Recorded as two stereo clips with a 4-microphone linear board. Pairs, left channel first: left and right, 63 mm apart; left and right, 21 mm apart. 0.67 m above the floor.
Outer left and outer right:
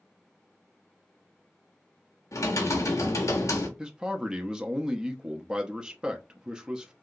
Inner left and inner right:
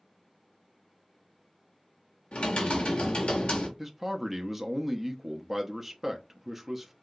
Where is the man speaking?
15° right (ahead or behind), 0.5 m.